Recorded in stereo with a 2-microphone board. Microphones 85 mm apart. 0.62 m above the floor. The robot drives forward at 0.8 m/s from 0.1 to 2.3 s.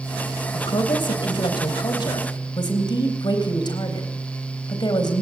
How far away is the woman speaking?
About 3 m.